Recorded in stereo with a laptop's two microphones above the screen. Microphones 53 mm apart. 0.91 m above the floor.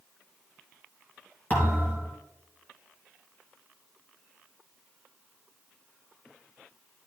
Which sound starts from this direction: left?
A thud, at 1.5 s.